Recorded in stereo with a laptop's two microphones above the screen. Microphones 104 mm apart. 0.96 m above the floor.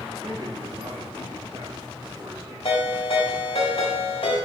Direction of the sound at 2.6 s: 60° left (ahead or behind).